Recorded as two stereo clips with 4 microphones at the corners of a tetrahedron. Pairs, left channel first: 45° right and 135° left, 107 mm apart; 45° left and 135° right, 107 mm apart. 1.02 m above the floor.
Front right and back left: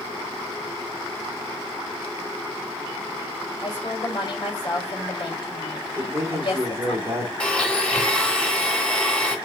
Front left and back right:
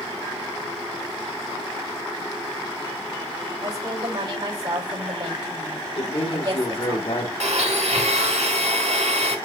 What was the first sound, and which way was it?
A woman speaking, 90° right.